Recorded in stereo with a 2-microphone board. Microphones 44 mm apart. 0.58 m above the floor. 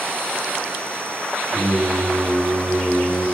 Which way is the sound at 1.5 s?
Centre (ahead or behind).